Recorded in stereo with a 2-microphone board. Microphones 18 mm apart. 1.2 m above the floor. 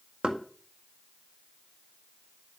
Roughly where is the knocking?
Right.